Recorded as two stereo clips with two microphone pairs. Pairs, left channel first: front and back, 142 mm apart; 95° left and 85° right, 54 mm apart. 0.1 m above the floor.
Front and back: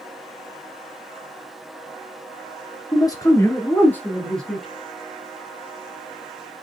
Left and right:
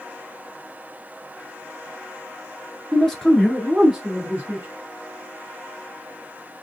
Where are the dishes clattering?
No dishes clattering in this recording.